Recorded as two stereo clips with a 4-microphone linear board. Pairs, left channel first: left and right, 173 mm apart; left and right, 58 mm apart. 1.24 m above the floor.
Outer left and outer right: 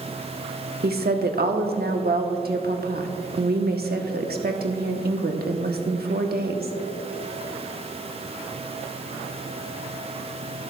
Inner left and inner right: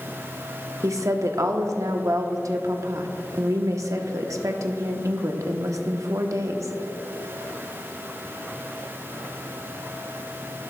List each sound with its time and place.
0.8 s a woman speaking: 65° right (ahead or behind), 0.9 m